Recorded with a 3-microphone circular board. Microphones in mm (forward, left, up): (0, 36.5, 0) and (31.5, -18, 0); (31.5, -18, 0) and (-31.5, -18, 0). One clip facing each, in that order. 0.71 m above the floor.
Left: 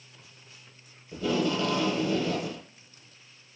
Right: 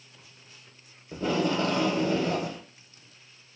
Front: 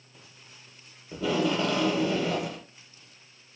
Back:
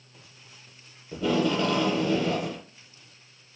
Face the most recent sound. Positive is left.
turn(degrees=-85)